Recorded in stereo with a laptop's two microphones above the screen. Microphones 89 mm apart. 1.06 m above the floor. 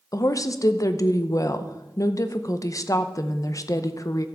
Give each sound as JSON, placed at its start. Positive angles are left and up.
{"t": 0.1, "sound": "a woman speaking", "side_deg": 40, "distance_m": 0.7}